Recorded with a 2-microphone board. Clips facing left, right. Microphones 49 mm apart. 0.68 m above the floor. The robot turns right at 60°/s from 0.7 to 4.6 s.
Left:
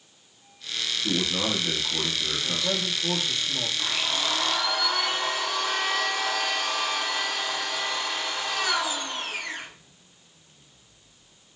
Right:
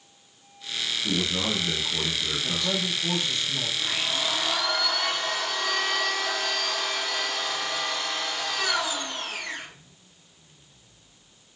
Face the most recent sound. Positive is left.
turn(degrees=155)